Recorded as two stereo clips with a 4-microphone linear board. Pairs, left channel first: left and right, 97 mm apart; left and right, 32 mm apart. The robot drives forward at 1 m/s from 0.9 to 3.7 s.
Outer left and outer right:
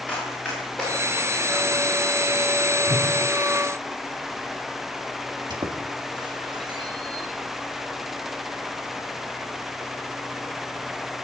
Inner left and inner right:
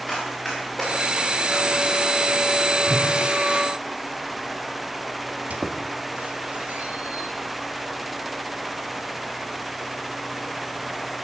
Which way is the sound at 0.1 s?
15° left (ahead or behind).